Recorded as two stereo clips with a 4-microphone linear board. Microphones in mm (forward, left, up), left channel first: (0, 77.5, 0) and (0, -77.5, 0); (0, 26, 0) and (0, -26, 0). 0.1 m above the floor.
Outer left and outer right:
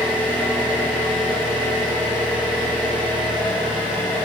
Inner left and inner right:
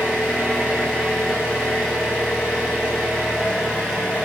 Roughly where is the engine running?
Right.